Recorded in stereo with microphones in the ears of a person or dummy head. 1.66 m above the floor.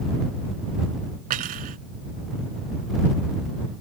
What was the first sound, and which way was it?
Cutlery clinking, 50° right (ahead or behind).